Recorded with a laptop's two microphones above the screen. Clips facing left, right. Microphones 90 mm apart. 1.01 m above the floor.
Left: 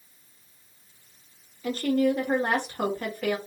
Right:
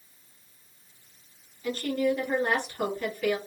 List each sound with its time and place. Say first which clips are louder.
1.6 s a woman speaking: left 3 dB; 45° left (ahead or behind), 1.8 m